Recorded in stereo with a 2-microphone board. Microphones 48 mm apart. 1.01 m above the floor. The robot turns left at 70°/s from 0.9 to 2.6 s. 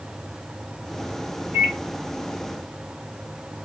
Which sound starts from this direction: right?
A microwave, at 1.5 s.